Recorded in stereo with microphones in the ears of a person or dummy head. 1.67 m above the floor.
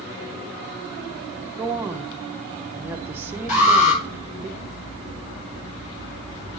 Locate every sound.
1.6 s a woman speaking: 10° right (ahead or behind), 0.7 m
3.5 s an alarm: 40° left (ahead or behind), 6 m